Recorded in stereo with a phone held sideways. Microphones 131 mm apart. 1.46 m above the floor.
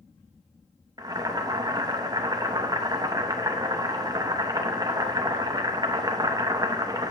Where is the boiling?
30° right (ahead or behind), 0.7 m.